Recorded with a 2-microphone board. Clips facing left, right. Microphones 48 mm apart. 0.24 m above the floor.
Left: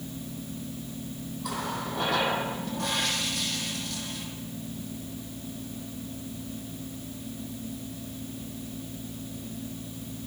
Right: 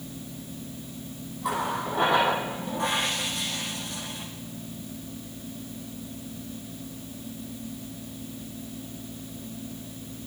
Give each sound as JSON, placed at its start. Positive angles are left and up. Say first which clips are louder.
{"t": 1.4, "sound": "a running tap", "louder": "right 5 dB", "side_deg": -25, "distance_m": 6.5}